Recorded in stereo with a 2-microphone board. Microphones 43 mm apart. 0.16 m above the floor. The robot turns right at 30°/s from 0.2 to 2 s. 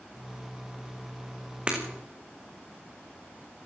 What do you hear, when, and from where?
1.7 s breaking glass: 25° right (ahead or behind), 7 m; by 1.8 s 20° right (ahead or behind), 7 m